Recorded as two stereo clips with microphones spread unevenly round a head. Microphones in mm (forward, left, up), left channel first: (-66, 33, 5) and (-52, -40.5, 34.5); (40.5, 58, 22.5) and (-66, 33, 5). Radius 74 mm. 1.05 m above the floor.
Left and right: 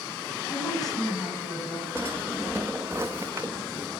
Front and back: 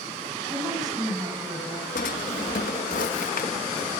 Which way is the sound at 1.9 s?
5° right.